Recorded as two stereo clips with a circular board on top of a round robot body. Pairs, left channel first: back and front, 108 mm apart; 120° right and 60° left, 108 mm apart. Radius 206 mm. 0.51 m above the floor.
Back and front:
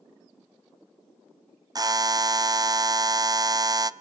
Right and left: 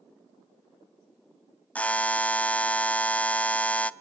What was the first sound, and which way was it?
A buzzer, 45° right.